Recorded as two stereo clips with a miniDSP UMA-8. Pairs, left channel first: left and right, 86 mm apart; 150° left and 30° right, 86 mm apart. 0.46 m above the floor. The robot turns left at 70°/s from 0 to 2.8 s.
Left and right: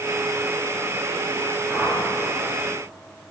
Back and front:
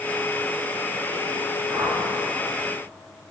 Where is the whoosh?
10° left, 2.5 m; by 2.0 s 15° right, 2.5 m.